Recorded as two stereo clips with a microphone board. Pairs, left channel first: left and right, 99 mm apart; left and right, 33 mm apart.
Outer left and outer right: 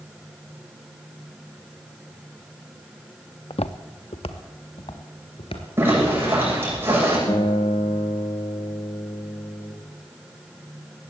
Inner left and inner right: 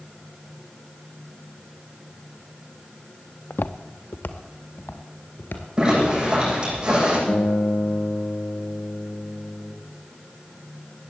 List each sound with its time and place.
3.5 s footsteps: 75° left (ahead or behind), 0.7 m
5.8 s a zipper: 25° right (ahead or behind), 9.5 m
7.3 s a guitar: 60° left (ahead or behind), 3 m